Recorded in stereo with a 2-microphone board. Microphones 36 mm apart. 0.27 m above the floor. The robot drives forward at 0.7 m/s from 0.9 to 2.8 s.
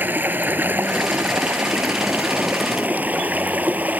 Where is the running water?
60° right (ahead or behind); by 4.0 s 50° right (ahead or behind).